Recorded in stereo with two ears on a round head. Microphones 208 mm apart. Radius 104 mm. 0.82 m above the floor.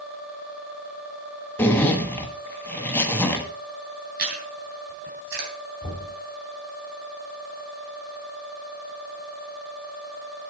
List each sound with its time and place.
1.6 s a zipper: 10° left (ahead or behind), 1.2 m
4.2 s chewing: 45° right (ahead or behind), 3 m
5.8 s knocking: 25° left (ahead or behind), 3.5 m